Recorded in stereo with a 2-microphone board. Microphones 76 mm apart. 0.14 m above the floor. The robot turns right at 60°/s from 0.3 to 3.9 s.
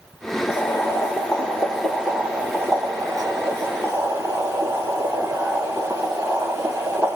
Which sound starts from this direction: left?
Boiling, at 0.5 s.